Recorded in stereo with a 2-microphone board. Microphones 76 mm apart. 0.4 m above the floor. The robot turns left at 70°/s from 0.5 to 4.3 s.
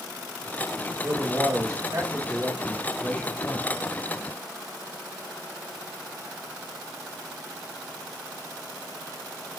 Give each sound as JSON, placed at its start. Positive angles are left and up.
{"t": 1.0, "sound": "a man speaking", "azimuth_deg": -40, "distance_m": 1.6}